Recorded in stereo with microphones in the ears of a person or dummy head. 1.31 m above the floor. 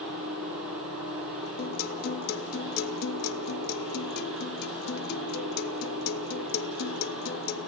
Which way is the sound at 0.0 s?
80° right.